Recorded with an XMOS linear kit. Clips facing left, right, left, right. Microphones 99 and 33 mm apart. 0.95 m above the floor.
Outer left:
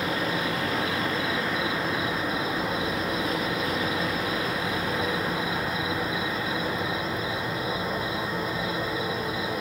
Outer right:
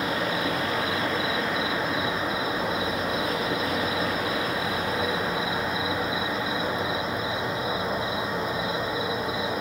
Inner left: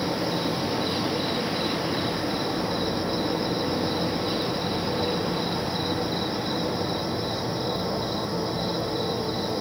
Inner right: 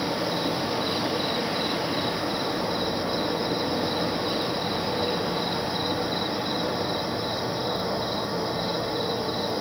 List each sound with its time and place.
0.0 s an insect: 25° right (ahead or behind), 1.3 m